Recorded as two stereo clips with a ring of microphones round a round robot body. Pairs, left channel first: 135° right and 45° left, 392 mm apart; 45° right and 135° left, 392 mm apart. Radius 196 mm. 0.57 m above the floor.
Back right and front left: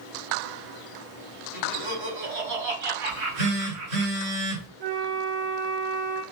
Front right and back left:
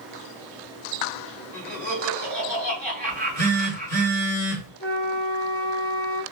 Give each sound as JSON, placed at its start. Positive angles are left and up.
{"t": 1.5, "sound": "laughter", "azimuth_deg": 40, "distance_m": 3.0}
{"t": 3.1, "sound": "a phone buzzing", "azimuth_deg": 35, "distance_m": 2.5}
{"t": 4.8, "sound": "a flute", "azimuth_deg": 10, "distance_m": 1.6}